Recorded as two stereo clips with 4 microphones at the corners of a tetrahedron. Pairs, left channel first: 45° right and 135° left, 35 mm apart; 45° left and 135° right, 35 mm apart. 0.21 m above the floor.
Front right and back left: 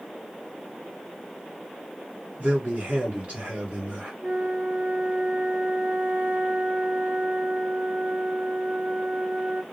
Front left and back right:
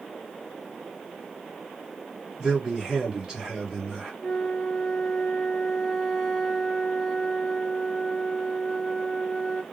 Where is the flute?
125° left, 1.1 m.